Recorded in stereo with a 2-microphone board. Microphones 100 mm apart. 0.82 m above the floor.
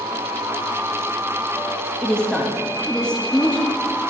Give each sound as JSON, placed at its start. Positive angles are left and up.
{"t": 2.0, "sound": "a woman speaking", "side_deg": 10, "distance_m": 1.1}